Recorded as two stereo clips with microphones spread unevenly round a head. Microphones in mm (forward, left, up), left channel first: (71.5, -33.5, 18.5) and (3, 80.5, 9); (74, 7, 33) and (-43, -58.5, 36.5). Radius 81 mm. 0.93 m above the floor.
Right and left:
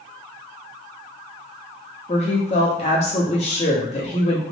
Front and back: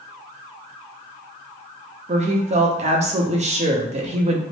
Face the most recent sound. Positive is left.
turn(degrees=-115)